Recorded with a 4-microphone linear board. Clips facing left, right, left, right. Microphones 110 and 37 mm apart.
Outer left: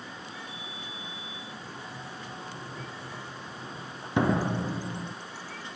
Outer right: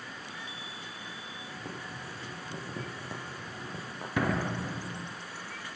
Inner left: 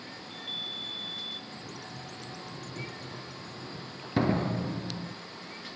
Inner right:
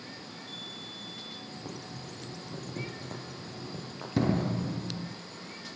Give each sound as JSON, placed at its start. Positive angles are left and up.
{"t": 0.2, "sound": "a chime", "side_deg": 50, "distance_m": 4.0}
{"t": 1.5, "sound": "boiling", "side_deg": -75, "distance_m": 9.0}
{"t": 4.2, "sound": "a door slam", "side_deg": 25, "distance_m": 2.0}